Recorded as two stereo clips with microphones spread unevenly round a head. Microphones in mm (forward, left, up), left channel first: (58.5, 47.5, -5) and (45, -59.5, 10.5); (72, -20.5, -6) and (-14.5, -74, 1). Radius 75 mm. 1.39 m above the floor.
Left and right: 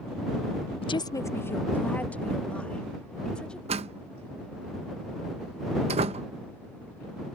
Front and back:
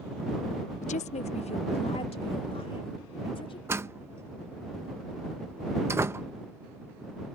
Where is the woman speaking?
45° left; by 3.6 s straight ahead.